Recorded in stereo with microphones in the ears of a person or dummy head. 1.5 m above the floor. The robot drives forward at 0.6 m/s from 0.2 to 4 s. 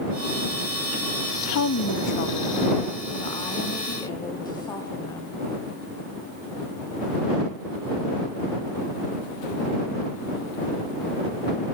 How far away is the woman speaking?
About 0.5 m.